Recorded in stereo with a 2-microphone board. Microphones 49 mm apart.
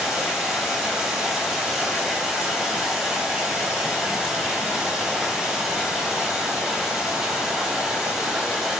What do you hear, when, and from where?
0.0 s running water: 10° right (ahead or behind), 0.9 m